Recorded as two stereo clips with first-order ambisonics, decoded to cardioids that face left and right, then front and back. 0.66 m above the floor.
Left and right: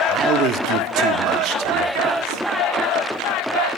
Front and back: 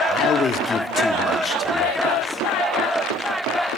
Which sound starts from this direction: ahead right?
A man speaking, at 0.1 s.